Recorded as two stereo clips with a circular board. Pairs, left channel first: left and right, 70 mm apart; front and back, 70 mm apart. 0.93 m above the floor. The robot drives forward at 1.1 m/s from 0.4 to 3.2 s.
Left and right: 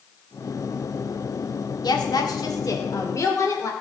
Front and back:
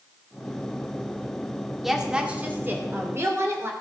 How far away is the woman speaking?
About 1.9 m.